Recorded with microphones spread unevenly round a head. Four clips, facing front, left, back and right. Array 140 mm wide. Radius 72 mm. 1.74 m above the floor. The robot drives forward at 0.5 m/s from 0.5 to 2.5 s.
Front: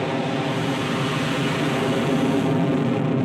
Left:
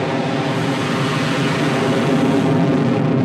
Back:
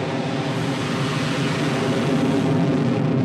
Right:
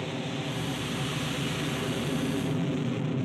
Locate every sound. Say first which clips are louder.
0.0 s an aircraft: left 15 dB, front 1 dB; 85° left; by 3.3 s 90° left